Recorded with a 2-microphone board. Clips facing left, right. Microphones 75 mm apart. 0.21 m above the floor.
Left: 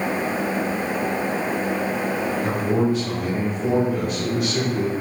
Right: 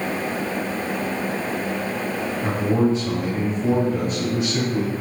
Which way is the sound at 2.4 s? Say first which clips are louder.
Right 3 dB; 25° right (ahead or behind).